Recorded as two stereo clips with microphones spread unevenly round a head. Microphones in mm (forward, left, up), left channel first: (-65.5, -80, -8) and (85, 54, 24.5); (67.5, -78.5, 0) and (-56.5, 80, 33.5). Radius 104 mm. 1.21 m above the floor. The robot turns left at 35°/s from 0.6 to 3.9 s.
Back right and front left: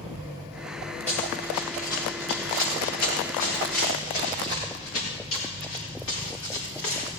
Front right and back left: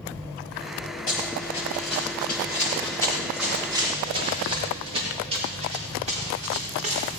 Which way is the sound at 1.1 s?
55° right.